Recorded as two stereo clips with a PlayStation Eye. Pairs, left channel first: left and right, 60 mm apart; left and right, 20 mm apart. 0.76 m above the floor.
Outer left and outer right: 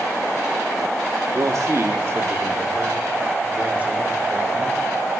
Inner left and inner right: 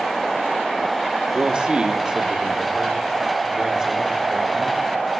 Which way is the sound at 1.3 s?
65° right (ahead or behind).